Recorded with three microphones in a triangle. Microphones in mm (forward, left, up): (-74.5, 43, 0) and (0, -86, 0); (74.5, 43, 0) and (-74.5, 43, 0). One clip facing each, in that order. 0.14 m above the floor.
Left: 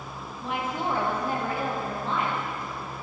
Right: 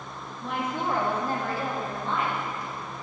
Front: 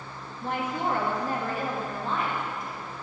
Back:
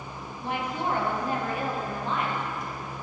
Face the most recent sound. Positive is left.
turn(degrees=65)